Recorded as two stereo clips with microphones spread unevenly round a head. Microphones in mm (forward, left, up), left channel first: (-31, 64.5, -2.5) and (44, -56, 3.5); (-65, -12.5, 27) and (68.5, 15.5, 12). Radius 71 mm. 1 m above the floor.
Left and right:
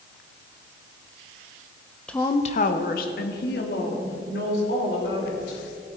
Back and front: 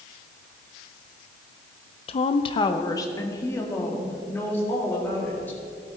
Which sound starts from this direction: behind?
A woman speaking, at 2.1 s.